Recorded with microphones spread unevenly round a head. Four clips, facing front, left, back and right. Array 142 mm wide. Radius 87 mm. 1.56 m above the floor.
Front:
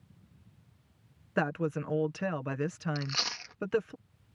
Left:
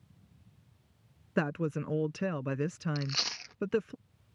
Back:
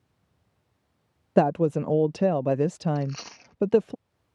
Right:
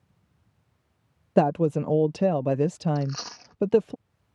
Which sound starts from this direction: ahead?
A fan, at 0.0 s.